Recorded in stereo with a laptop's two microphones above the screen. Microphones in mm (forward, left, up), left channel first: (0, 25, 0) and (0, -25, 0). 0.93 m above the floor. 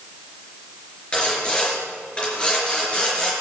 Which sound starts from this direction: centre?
Sawing, at 1.1 s.